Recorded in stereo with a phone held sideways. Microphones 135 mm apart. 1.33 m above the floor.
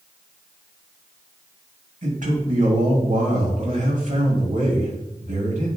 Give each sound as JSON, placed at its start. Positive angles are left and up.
{"t": 2.0, "sound": "a man speaking", "side_deg": -70, "distance_m": 3.0}